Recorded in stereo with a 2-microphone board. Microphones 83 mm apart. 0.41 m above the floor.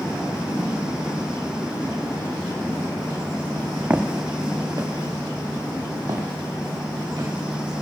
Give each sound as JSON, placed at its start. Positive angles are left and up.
{"t": 3.9, "sound": "footsteps", "side_deg": -20, "distance_m": 1.0}